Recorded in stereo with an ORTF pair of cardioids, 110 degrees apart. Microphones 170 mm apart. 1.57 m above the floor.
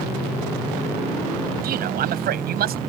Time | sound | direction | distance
1.6 | a man speaking | 65° right | ?